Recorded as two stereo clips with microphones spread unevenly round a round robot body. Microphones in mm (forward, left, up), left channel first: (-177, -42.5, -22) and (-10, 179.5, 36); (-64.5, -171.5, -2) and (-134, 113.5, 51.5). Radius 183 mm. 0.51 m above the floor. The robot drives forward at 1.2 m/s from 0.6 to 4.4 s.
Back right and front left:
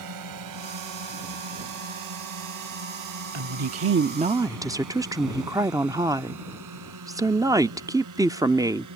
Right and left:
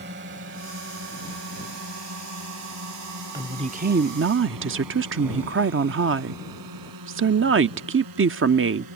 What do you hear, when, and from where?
0.0 s a drone: 40° left; by 9.0 s 70° left
3.3 s a woman speaking: 20° left; by 8.9 s 140° left